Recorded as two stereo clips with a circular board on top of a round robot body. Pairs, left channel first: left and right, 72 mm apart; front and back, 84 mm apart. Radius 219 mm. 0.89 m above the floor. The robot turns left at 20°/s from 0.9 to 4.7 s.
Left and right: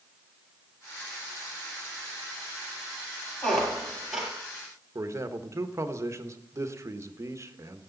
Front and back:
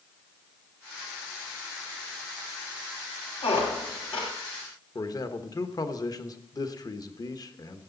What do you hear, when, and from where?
3.4 s a squeak: 10° left, 1.3 m; by 4.3 s 5° right, 1.3 m
5.0 s a man speaking: 40° right, 1.3 m